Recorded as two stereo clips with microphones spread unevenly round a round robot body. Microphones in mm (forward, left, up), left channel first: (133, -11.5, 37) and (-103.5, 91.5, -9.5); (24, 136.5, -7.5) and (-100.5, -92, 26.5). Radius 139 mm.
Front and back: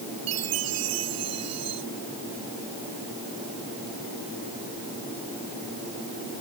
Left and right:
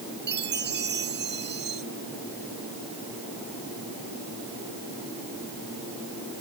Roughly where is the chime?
Behind.